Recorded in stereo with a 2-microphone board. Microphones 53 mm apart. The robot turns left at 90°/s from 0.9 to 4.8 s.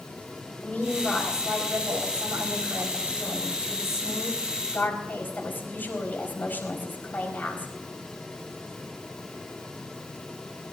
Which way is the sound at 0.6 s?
30° left.